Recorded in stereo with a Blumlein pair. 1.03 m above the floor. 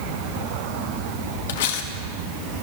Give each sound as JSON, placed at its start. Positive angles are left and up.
{"t": 1.5, "sound": "cutlery clinking", "azimuth_deg": 55, "distance_m": 1.1}